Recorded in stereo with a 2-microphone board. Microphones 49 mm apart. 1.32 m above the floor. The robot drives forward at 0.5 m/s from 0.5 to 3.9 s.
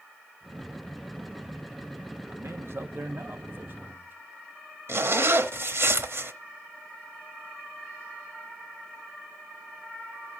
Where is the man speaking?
65° right (ahead or behind), 1.5 m; by 4.2 s 45° right (ahead or behind), 2.0 m.